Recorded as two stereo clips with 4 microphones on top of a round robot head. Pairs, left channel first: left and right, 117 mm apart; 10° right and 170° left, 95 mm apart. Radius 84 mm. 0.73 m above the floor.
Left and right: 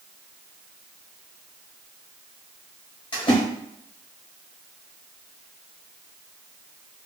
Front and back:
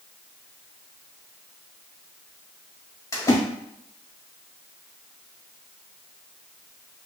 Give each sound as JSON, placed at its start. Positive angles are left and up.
{"t": 3.1, "sound": "a splash", "azimuth_deg": 45, "distance_m": 1.6}